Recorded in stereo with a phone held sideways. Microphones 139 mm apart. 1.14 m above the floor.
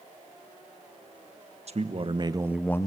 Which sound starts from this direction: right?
A man speaking, at 1.7 s.